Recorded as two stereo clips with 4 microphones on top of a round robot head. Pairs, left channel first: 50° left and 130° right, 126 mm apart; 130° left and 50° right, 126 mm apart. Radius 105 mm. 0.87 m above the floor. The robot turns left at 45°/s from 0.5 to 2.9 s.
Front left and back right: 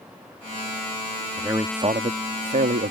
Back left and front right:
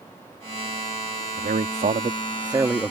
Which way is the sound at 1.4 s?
60° right.